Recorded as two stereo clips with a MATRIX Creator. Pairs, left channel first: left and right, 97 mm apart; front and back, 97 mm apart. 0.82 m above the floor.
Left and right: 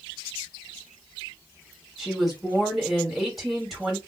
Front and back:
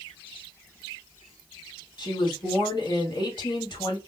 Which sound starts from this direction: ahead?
A woman speaking, at 2.0 s.